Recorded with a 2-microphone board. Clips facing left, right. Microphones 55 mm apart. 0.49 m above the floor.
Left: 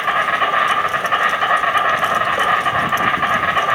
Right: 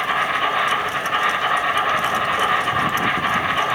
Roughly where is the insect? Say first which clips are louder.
Left 3 dB; left.